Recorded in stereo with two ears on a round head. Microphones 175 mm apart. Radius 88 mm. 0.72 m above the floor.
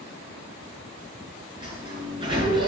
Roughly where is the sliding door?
Right.